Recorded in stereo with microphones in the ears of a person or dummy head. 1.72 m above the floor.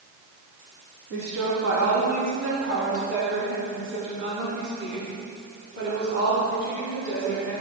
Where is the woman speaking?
70° right (ahead or behind), 3 m; by 7.6 s 50° right (ahead or behind), 4.5 m.